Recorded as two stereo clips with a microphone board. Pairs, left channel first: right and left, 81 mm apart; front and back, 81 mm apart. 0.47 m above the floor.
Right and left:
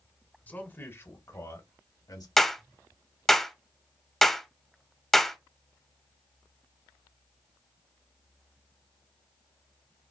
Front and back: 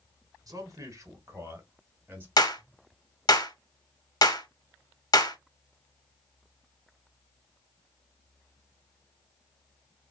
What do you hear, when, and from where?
0.5 s a man speaking: 155° right, 1.4 m; by 2.3 s 120° right, 2 m
2.4 s a clap: 5° right, 0.8 m